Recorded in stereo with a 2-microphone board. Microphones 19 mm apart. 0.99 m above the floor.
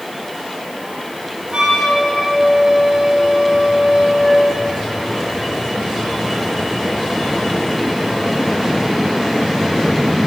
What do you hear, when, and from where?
1.5 s a flute: 60° right (ahead or behind), 1.7 m